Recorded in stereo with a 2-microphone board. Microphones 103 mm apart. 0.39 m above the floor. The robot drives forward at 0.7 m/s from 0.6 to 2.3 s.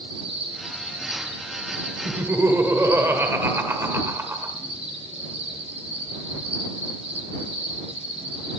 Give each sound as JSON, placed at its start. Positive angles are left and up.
{"t": 0.0, "sound": "an insect", "side_deg": -75, "distance_m": 3.0}
{"t": 2.0, "sound": "laughter", "side_deg": -25, "distance_m": 1.4}